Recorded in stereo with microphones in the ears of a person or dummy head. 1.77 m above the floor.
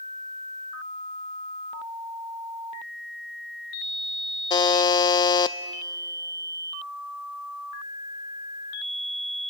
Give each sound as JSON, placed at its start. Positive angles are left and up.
{"t": 4.5, "sound": "a buzzer", "side_deg": 25, "distance_m": 0.6}